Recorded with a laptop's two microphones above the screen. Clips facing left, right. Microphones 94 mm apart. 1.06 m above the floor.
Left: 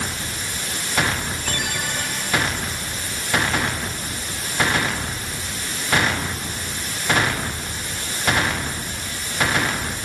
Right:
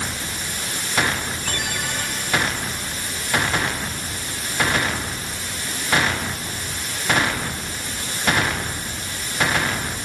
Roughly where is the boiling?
No boiling in this recording.